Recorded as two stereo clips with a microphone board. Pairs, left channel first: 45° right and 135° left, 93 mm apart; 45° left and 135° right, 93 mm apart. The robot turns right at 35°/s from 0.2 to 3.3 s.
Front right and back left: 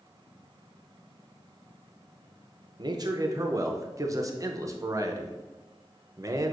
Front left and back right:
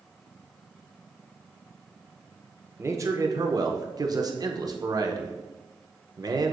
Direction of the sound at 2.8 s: 165° left.